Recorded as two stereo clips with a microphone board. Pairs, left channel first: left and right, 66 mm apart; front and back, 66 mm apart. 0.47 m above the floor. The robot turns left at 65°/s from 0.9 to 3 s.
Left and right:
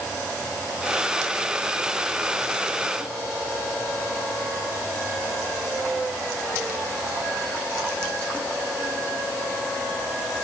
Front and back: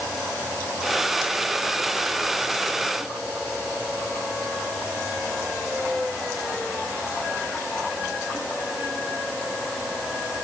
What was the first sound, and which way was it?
Only background noise.